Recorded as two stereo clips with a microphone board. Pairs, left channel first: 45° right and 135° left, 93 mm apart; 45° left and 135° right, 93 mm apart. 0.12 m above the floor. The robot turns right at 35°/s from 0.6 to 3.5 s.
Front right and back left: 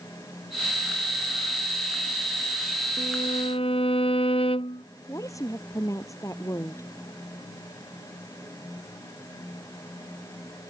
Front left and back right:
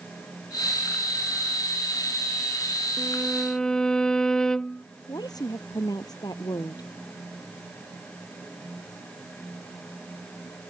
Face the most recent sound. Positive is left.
turn(degrees=5)